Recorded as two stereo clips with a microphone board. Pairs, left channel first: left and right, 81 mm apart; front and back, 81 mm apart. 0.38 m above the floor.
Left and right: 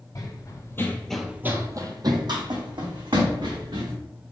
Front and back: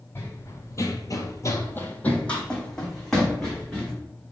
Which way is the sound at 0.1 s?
60° left.